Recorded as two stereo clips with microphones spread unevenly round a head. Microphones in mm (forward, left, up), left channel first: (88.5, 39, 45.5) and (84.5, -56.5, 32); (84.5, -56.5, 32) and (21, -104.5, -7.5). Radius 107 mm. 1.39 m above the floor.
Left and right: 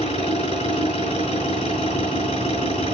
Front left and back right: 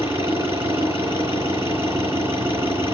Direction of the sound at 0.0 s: 130° left.